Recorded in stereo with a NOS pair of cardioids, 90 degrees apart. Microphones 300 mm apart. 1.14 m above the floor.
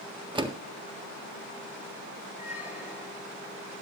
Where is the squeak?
5° right, 4 m.